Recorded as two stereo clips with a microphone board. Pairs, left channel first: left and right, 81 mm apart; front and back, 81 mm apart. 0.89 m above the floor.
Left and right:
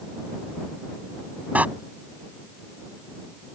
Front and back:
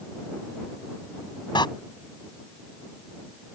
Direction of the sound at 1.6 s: 20° right.